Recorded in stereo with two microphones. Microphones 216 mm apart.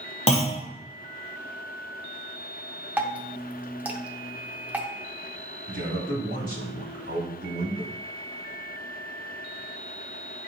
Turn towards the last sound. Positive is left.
turn(degrees=-60)  # may be behind; listen again after turning